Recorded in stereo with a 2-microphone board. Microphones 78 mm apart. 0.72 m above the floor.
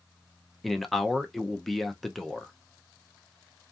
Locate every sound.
0.6 s a man speaking: centre (ahead or behind), 0.5 m